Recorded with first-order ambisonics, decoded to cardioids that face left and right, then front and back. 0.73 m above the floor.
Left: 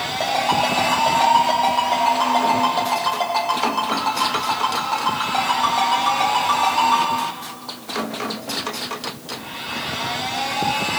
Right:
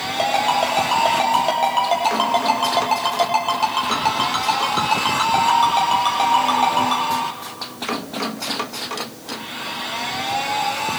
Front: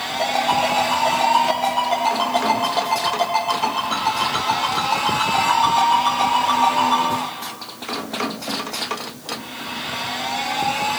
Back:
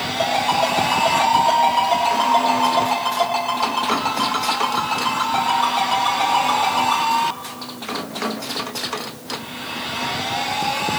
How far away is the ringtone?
About 8 m.